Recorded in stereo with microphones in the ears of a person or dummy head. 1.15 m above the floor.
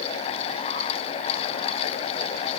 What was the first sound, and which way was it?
Only background noise.